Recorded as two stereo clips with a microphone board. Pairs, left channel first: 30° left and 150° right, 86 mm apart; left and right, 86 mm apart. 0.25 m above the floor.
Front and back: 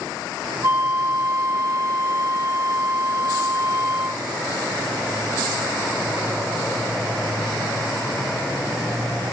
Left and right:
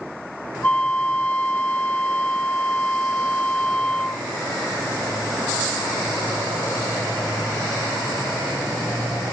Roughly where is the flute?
Behind.